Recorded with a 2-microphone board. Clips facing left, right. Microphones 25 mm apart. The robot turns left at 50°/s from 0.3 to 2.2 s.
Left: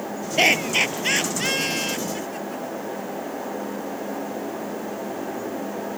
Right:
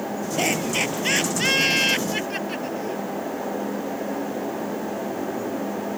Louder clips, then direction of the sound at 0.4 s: Left 5 dB; 40° left (ahead or behind).